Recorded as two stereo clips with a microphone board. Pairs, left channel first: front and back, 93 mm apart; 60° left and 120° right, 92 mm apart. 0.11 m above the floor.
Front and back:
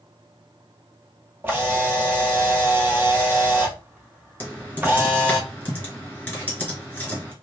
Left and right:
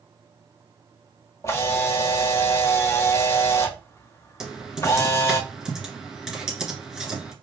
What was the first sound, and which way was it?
A camera shutter, 115° left.